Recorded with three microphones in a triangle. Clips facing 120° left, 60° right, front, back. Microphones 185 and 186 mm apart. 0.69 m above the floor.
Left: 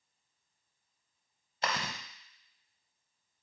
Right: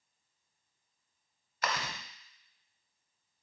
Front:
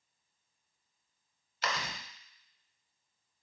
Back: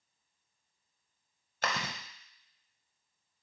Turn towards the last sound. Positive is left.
turn(degrees=170)